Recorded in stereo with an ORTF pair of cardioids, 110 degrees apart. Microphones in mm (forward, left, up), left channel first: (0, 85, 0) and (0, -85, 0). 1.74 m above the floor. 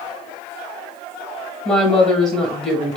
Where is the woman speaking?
5° left, 1.8 m.